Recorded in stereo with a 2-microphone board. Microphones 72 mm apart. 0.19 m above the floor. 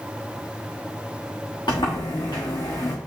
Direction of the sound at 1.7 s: 85° left.